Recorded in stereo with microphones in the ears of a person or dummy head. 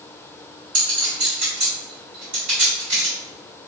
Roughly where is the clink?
Right.